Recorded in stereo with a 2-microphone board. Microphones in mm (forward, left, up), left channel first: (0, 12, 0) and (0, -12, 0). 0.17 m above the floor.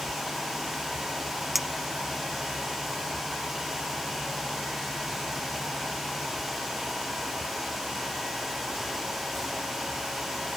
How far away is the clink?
About 0.6 m.